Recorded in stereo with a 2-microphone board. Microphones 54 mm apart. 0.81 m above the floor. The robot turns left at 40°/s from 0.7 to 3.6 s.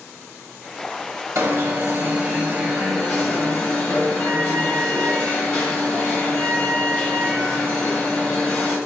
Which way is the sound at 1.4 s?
110° right.